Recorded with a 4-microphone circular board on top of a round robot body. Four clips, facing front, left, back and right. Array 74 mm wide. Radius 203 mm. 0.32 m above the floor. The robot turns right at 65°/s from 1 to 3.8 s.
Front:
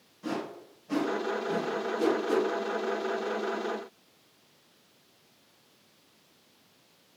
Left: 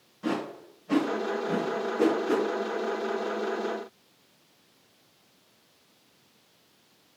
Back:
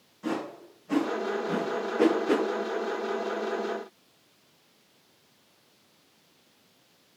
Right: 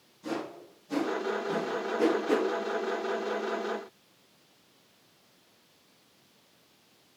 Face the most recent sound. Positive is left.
turn(degrees=-75)